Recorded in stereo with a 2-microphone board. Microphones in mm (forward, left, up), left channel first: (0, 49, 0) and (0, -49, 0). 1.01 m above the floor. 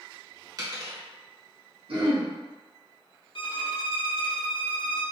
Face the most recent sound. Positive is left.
turn(degrees=60)  # may be behind; listen again after turning